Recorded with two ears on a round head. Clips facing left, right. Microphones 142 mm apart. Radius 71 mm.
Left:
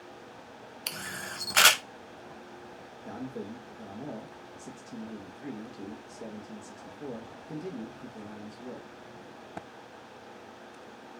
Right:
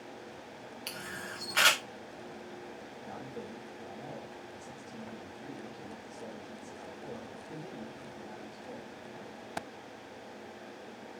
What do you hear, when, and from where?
0.9 s a camera shutter: 55° left (ahead or behind), 0.7 m
3.0 s a man speaking: 55° left (ahead or behind), 1.2 m